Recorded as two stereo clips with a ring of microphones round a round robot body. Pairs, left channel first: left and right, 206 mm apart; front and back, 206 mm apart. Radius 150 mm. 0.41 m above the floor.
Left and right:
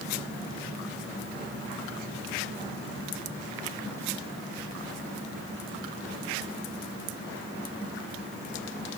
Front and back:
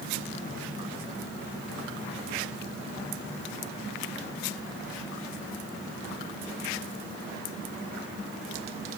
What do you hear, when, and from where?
Only background noise.